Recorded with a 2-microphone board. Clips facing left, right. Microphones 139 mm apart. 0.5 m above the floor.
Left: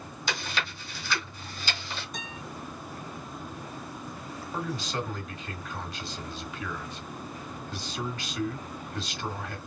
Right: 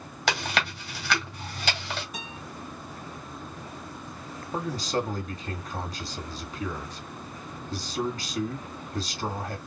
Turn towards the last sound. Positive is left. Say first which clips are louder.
# right 4 dB
turn(degrees=-35)  # may be behind; listen again after turning